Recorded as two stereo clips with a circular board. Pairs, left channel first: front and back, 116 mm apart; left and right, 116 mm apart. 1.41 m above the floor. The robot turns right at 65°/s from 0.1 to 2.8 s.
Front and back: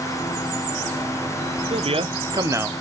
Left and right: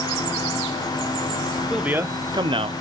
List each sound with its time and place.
1.7 s a man speaking: 175° right, 0.6 m; by 2.7 s 110° right, 0.6 m